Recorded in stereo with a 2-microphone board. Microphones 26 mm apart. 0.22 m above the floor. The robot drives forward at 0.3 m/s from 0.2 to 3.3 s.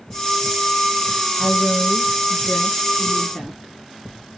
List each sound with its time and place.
1.4 s a woman speaking: 35° right (ahead or behind), 3.5 m